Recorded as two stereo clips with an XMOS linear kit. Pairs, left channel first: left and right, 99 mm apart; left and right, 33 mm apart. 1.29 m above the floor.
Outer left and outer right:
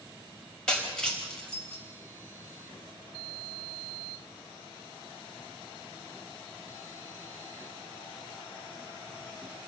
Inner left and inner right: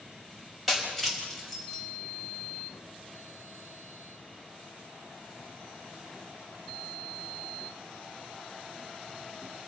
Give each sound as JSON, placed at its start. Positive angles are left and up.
{"t": 0.7, "sound": "breaking glass", "side_deg": 5, "distance_m": 4.5}